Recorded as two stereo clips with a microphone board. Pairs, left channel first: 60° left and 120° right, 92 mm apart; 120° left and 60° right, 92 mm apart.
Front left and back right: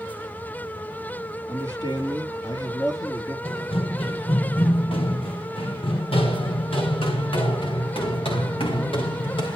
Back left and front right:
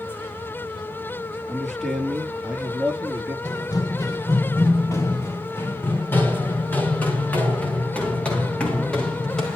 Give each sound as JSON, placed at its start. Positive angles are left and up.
{"t": 1.5, "sound": "a man speaking", "azimuth_deg": 35, "distance_m": 4.0}
{"t": 3.5, "sound": "running footsteps", "azimuth_deg": 80, "distance_m": 2.5}